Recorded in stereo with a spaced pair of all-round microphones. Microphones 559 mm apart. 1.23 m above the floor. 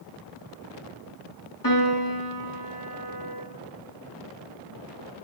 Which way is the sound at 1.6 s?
35° left (ahead or behind).